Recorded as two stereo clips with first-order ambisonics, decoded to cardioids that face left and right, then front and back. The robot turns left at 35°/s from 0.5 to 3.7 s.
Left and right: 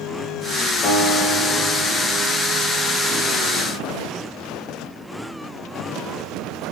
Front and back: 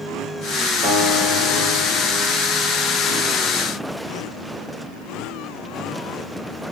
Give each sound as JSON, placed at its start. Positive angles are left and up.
{"t": 0.8, "sound": "a guitar", "azimuth_deg": 145, "distance_m": 1.7}